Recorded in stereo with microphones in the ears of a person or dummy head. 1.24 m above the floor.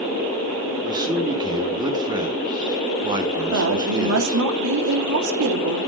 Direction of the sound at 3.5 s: 70° right (ahead or behind).